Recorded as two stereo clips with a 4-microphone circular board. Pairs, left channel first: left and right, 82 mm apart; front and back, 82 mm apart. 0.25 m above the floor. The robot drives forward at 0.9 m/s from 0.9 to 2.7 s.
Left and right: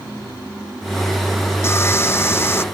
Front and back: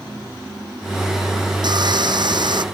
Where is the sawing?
150° left.